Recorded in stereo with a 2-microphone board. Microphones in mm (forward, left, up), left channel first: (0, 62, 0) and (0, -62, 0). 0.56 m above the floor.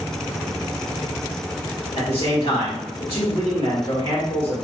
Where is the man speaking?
50° left (ahead or behind), 1.3 m.